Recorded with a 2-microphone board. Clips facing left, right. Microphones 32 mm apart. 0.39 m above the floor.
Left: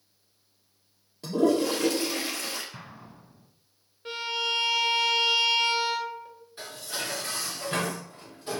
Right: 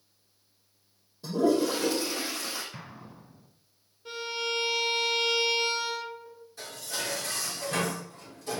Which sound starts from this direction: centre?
An explosion, at 2.7 s.